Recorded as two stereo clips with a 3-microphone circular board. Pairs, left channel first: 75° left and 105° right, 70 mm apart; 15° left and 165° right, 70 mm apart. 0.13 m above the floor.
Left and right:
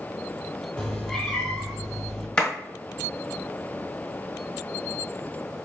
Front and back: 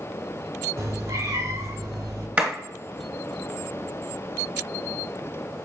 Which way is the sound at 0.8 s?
155° left.